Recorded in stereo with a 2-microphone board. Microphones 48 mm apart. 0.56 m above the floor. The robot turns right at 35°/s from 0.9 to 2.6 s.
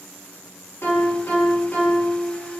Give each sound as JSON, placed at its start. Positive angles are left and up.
{"t": 0.8, "sound": "a piano", "azimuth_deg": 105, "distance_m": 1.0}